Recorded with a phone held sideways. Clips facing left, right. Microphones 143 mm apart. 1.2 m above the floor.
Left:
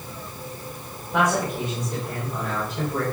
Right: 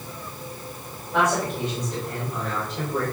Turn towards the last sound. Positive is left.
turn(degrees=5)  # may be behind; listen again after turning